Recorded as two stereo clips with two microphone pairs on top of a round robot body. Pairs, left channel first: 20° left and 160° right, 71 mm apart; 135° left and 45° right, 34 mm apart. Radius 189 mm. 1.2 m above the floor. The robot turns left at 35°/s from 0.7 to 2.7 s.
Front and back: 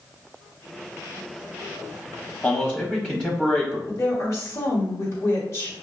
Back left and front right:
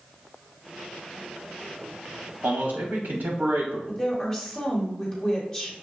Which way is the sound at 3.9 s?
65° left.